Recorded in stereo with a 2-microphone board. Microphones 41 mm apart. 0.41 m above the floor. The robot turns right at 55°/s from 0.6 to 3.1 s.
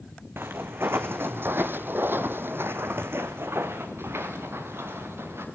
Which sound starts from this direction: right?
Footsteps, at 0.4 s.